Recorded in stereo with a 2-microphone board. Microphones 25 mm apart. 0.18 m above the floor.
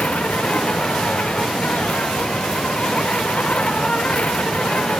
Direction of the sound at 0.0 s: 60° left (ahead or behind).